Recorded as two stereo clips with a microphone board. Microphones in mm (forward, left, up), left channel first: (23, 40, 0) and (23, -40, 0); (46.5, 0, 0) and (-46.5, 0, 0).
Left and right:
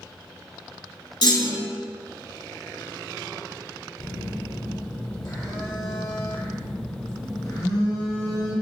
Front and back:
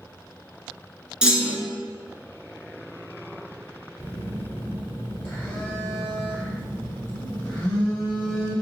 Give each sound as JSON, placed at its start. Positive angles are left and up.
{"t": 1.2, "sound": "a clunk", "azimuth_deg": 100, "distance_m": 0.8}
{"t": 4.0, "sound": "a phone buzzing", "azimuth_deg": 65, "distance_m": 1.2}